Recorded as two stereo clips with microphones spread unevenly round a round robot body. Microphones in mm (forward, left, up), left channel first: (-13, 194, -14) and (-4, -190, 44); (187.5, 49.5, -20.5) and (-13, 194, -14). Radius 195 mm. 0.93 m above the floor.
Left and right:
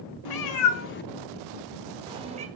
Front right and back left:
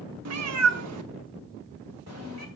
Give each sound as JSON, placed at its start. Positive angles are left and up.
{"t": 0.2, "sound": "a cat meowing", "azimuth_deg": 125, "distance_m": 1.1}